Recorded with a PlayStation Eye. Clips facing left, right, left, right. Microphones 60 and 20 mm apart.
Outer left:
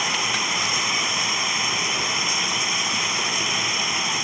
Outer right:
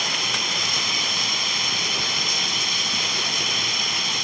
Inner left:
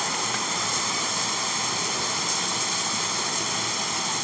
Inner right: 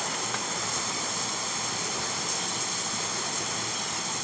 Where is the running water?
20° left (ahead or behind).